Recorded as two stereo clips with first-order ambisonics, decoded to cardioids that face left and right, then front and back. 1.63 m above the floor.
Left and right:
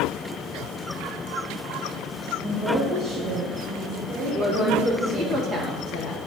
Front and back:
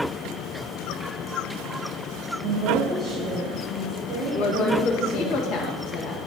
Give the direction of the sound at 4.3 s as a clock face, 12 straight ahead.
1 o'clock.